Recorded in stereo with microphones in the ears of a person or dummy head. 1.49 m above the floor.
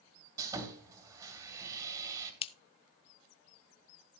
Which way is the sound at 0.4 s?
20° right (ahead or behind).